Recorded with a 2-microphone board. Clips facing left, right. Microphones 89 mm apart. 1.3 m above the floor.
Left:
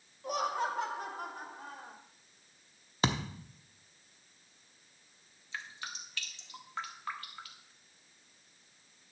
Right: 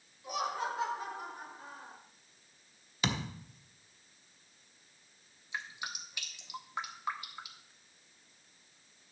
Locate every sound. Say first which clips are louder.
0.2 s laughter: left 2 dB; 45° left (ahead or behind), 2.5 m; by 2.0 s 65° left (ahead or behind), 3.5 m
3.0 s a thud: left 3 dB; 35° left (ahead or behind), 0.9 m
5.5 s dripping: right 2 dB; 15° right (ahead or behind), 1.3 m